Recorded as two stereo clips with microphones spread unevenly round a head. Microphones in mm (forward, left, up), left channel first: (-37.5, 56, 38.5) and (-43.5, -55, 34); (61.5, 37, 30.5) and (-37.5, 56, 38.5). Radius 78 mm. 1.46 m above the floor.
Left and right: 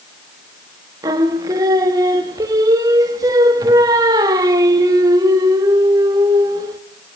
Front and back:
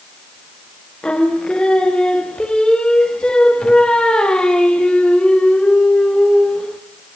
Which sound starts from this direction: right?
Singing, at 1.0 s.